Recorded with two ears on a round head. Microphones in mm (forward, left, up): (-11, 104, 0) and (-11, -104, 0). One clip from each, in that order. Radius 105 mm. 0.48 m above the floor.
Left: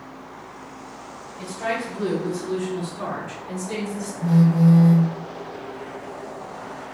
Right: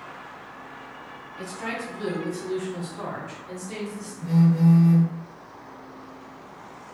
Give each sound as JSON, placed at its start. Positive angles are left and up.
{"t": 1.4, "sound": "a woman speaking", "side_deg": -50, "distance_m": 1.6}
{"t": 4.2, "sound": "a phone buzzing", "side_deg": 5, "distance_m": 1.0}